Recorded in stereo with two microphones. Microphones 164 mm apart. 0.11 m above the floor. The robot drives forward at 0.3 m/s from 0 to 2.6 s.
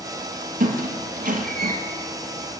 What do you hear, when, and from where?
0.6 s a squeak: 60° right (ahead or behind), 0.8 m